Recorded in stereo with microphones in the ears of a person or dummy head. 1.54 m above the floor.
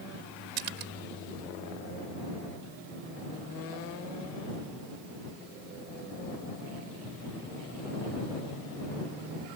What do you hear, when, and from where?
0.6 s a splash: 65° right (ahead or behind)